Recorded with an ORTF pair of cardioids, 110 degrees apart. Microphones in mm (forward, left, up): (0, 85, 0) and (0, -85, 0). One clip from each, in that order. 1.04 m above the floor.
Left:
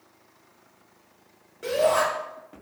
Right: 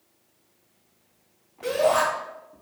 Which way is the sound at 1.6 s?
10° left.